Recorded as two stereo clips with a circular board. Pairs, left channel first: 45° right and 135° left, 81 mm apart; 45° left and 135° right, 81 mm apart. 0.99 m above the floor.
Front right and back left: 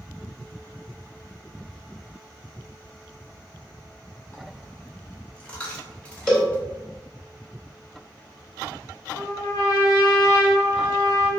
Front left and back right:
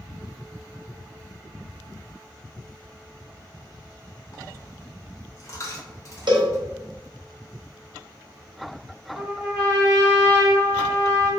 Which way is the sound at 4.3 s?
25° left.